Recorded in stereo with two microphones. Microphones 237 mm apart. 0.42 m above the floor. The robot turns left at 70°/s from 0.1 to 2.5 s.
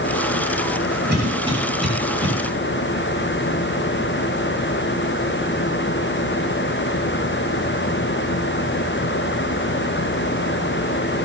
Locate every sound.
1.1 s a cough: 45° right (ahead or behind), 3.5 m; by 2.3 s 30° left (ahead or behind), 3.5 m